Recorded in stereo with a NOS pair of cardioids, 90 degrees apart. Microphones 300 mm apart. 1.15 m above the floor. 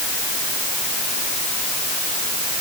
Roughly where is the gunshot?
No gunshot in this recording.